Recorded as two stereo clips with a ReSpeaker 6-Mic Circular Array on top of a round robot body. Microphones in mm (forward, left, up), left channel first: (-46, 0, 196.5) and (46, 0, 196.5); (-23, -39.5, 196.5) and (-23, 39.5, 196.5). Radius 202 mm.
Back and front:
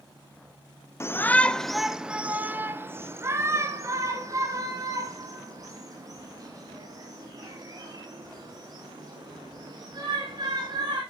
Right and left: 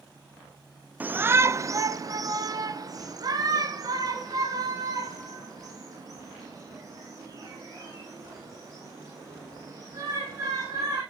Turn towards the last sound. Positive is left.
turn(degrees=45)